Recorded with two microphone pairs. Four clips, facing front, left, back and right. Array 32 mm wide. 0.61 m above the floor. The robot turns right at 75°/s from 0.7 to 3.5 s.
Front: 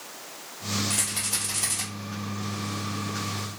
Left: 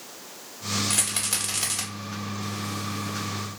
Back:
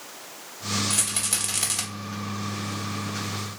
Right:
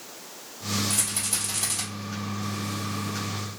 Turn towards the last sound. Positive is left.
turn(degrees=-80)